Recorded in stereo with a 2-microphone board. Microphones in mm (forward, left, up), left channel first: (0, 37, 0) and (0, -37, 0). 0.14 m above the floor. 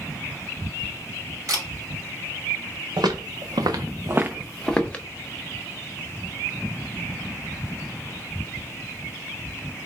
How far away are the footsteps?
About 1.1 m.